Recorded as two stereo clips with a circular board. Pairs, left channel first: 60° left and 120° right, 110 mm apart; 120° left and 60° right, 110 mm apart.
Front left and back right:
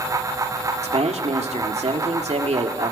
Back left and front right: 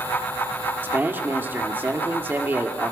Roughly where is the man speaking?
Behind right.